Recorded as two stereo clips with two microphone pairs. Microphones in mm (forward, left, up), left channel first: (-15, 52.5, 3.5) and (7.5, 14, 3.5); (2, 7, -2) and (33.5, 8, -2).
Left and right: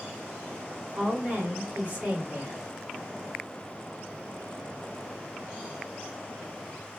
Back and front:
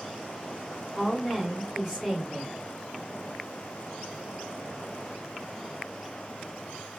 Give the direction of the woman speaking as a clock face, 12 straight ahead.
3 o'clock.